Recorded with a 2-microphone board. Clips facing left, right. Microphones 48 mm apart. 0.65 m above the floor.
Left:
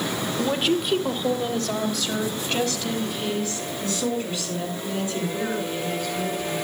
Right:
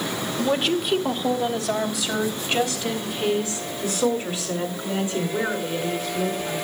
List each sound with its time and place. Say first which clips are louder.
0.4 s a woman speaking: right 1 dB; 5° left (ahead or behind), 1.6 m; by 6.5 s 25° right (ahead or behind), 9.5 m